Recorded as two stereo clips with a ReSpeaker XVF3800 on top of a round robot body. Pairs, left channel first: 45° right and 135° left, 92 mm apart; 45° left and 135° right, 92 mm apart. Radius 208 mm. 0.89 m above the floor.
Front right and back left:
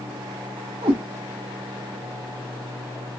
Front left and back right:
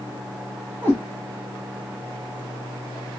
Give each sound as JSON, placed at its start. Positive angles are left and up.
{"t": 0.8, "sound": "a cat meowing", "azimuth_deg": 160, "distance_m": 0.6}